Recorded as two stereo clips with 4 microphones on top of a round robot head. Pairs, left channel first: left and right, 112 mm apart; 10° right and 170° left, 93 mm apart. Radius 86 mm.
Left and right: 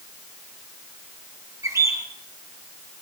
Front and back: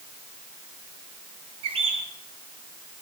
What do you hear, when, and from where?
1.6 s a bird: 155° right, 2 m